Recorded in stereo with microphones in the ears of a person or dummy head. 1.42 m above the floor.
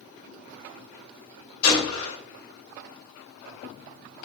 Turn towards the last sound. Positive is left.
turn(degrees=80)